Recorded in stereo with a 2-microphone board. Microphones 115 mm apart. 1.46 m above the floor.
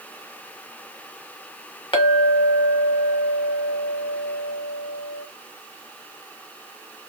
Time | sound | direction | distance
1.9 | a clink | 45° left (ahead or behind) | 1.0 m